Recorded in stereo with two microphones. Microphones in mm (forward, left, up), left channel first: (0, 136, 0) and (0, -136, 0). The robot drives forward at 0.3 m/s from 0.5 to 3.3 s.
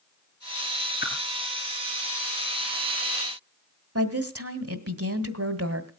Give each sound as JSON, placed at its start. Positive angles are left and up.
{"t": 1.0, "sound": "a whoosh", "side_deg": 35, "distance_m": 3.5}
{"t": 4.0, "sound": "a woman speaking", "side_deg": -60, "distance_m": 1.7}